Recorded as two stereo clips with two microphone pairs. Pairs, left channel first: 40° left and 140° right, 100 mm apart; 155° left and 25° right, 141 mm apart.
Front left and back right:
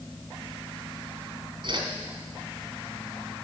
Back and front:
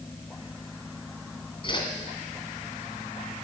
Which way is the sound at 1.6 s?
155° right.